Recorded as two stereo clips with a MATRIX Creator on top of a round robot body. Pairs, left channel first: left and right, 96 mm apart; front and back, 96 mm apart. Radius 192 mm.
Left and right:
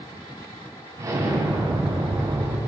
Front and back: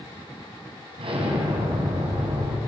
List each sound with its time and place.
1.0 s an explosion: 150° right, 4.5 m